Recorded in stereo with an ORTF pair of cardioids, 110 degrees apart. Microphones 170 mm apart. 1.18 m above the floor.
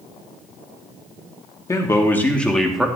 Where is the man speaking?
20° left, 2.5 m; by 2.9 s 5° right, 2 m.